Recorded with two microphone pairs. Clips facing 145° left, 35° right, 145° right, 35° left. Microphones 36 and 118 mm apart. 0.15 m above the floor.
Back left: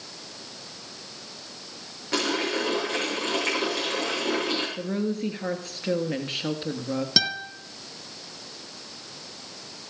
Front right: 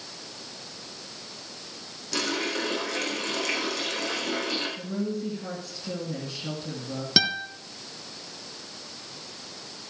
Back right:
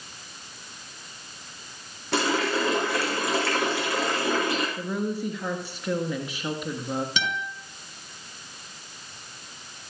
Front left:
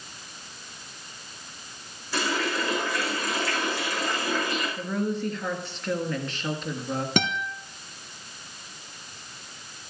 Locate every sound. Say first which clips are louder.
2.1 s a running tap: back left 3 dB, back right 3 dB; 160° right, 8 m
4.8 s a woman speaking: back left 3 dB, front left 1 dB; 135° left, 3 m
7.2 s a guitar: front right 4 dB, front left 4 dB; 45° left, 2.0 m